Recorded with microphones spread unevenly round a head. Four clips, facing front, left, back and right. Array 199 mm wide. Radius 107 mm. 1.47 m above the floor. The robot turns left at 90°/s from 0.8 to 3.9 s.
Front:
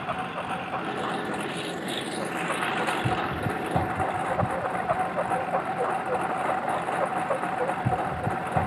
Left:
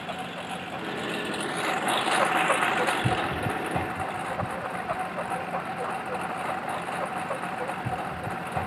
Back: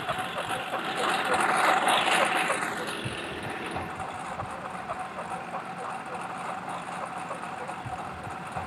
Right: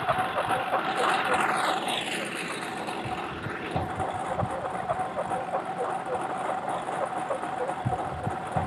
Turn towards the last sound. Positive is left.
turn(degrees=-20)